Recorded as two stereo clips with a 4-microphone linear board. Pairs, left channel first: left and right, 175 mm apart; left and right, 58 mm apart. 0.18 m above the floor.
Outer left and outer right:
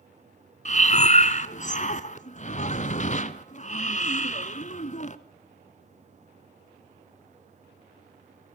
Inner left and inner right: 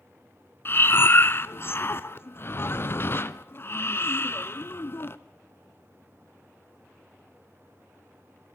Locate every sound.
0.7 s breathing: 40° left (ahead or behind), 0.9 m